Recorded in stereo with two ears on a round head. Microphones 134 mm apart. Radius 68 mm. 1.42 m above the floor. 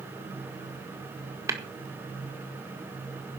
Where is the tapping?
20° right (ahead or behind), 1.9 m.